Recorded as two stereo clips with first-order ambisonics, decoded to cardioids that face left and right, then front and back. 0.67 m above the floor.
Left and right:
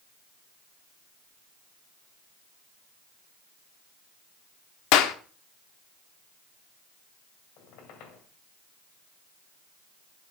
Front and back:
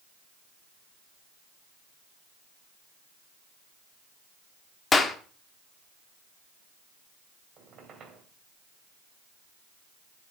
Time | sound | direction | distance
4.9 | a clap | 75° left | 1.1 m
7.6 | a squeak | 120° left | 2.5 m